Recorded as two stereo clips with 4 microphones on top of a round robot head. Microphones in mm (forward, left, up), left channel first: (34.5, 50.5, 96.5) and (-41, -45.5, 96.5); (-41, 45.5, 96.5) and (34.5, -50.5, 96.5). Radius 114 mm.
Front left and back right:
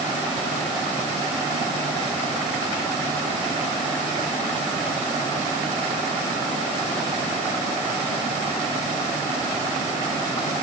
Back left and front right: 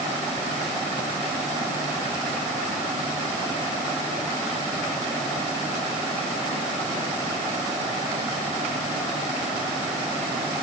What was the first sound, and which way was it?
Only background noise.